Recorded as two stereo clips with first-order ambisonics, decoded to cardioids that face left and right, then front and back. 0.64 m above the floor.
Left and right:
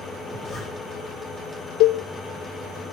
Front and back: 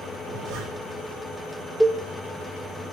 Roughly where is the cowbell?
Left.